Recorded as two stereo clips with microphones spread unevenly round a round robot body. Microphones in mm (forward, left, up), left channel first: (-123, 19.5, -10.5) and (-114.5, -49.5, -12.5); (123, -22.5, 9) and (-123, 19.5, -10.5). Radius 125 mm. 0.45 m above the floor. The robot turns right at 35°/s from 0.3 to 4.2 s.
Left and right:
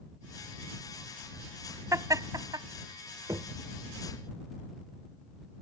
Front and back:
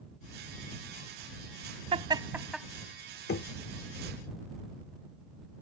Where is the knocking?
50° right; by 3.5 s 45° right.